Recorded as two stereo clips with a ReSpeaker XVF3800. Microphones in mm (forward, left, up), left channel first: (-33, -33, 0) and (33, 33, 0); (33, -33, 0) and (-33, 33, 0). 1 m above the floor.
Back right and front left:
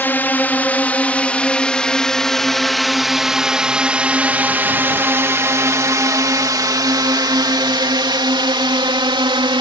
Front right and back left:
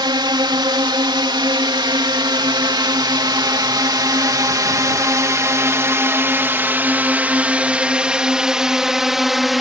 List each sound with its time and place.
0.0 s a drone: 160° left; by 9.6 s 45° left